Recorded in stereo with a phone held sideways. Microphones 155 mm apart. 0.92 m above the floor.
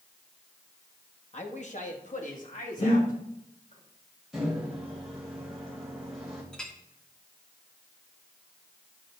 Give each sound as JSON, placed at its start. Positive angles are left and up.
{"t": 1.3, "sound": "a man speaking", "side_deg": 45, "distance_m": 1.3}
{"t": 2.8, "sound": "breathing", "side_deg": 40, "distance_m": 3.0}
{"t": 4.3, "sound": "a microwave", "side_deg": 0, "distance_m": 3.0}
{"t": 6.5, "sound": "a clink", "side_deg": 5, "distance_m": 1.5}